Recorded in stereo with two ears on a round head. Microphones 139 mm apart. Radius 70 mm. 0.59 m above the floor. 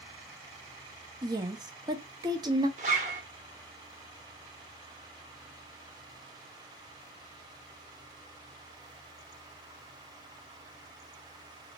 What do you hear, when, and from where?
1.2 s a woman speaking: 25° right (ahead or behind), 0.7 m
2.8 s a zipper: 45° right (ahead or behind), 1.1 m